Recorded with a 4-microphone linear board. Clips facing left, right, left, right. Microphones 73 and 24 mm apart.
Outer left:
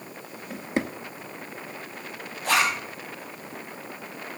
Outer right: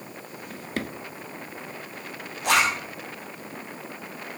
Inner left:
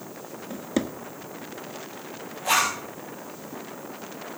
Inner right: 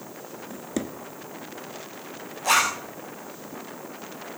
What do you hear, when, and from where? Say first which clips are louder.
0.5 s a drawer: outer left 4 dB, inner left 4 dB; 20° left (ahead or behind), 0.7 m
2.4 s a zipper: outer right 1 dB, inner right 1 dB; 75° right (ahead or behind), 5 m